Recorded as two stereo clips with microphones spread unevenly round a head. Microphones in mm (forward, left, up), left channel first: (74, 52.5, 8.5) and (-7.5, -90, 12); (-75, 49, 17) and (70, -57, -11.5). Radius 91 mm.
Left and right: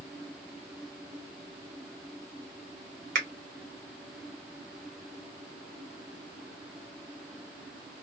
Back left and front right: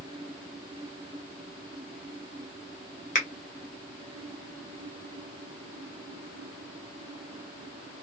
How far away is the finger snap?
About 1.2 m.